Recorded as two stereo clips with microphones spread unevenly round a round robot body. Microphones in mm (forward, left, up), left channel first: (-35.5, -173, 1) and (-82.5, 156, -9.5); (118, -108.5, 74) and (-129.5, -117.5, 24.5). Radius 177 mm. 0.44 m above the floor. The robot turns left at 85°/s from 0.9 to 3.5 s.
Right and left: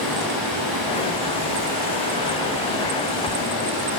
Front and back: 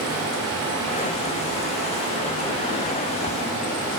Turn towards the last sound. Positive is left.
turn(degrees=-30)